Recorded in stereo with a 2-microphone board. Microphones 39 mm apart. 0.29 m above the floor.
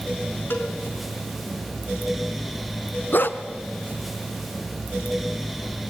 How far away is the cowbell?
About 4 m.